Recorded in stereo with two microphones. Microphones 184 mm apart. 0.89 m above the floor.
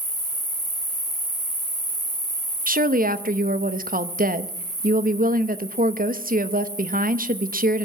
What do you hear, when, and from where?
0.0 s an insect: 45° left (ahead or behind), 6 m
2.7 s a woman speaking: 50° right (ahead or behind), 0.8 m